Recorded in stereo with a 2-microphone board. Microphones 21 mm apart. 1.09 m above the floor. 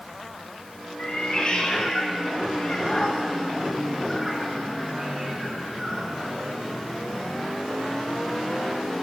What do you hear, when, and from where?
1.0 s a cat meowing: 60° left (ahead or behind), 3 m; by 6.1 s 40° right (ahead or behind), 3 m